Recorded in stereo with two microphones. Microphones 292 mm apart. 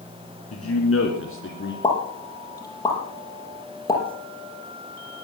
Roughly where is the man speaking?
Left.